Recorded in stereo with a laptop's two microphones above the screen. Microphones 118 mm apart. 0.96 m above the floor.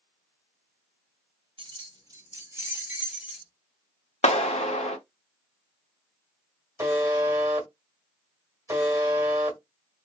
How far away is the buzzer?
About 0.8 m.